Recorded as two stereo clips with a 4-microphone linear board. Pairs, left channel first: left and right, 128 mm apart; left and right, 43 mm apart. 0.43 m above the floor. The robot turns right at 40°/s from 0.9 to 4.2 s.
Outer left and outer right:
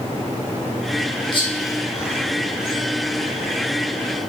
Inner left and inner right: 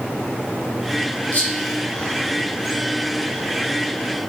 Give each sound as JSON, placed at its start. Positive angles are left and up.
{"t": 1.3, "sound": "whispering", "side_deg": 40, "distance_m": 1.4}